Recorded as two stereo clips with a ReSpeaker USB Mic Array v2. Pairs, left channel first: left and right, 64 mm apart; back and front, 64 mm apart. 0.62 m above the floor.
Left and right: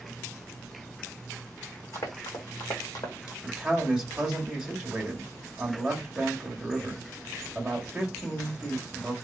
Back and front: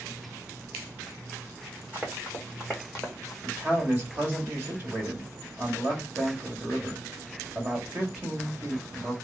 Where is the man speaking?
20° right, 1.4 m.